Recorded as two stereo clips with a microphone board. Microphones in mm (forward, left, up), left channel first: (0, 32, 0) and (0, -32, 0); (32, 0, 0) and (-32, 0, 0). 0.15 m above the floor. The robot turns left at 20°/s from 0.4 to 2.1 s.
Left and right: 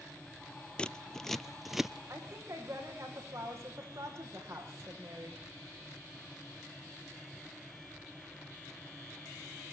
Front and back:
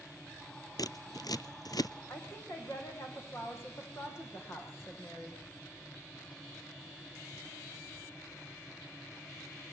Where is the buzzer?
No buzzer in this recording.